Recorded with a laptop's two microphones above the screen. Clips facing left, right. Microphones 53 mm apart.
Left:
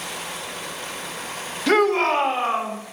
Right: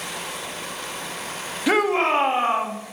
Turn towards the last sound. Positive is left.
turn(degrees=-40)  # may be behind; listen again after turning